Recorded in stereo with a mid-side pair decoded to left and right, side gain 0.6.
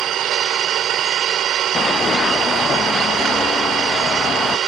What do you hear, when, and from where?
0.0 s an engine running: 55° right
1.8 s running footsteps: 35° left